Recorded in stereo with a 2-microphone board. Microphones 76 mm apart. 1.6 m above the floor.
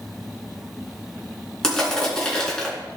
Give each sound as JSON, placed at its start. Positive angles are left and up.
{"t": 1.6, "sound": "crushing", "side_deg": 10, "distance_m": 3.5}